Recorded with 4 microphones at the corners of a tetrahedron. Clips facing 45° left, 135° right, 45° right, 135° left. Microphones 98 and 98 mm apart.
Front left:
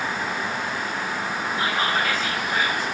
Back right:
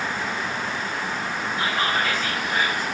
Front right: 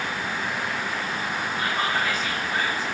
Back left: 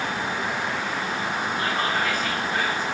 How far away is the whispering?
About 1.4 m.